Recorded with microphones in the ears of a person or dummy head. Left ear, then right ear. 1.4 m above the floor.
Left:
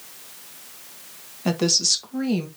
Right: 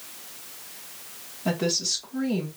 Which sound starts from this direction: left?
A woman speaking, at 1.4 s.